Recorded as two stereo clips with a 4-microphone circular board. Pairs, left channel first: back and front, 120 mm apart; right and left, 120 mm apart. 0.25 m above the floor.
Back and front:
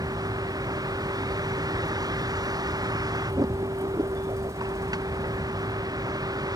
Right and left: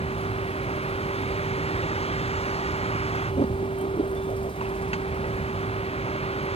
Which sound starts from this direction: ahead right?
A vehicle, at 0.0 s.